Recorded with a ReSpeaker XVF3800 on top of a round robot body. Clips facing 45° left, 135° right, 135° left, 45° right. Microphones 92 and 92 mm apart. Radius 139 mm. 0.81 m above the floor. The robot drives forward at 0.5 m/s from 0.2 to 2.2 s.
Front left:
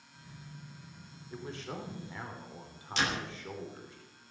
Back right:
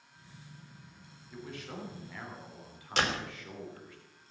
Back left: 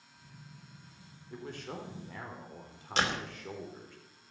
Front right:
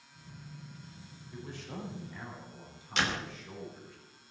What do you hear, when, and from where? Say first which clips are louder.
1.3 s a man speaking: front left 2 dB, back left 2 dB; 100° left, 3.5 m; by 4.0 s 110° left, 3.5 m
3.0 s a door slam: back right 2 dB, back left 1 dB; 175° right, 4 m